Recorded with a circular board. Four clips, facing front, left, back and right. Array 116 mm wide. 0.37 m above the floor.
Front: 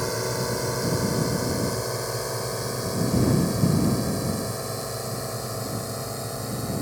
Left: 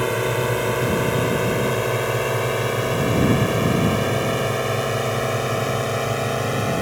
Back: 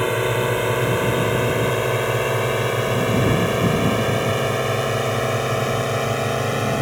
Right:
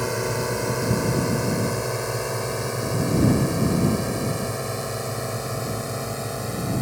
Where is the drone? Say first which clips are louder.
Left 4 dB, back 7 dB; 155° left; by 6.8 s 150° left.